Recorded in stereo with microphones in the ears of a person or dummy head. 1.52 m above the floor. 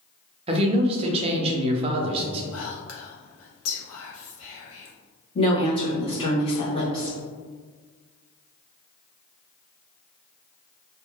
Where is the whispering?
85° left, 1.1 m.